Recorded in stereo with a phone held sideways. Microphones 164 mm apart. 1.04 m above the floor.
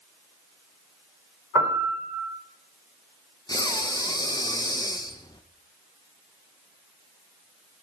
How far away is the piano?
About 3 m.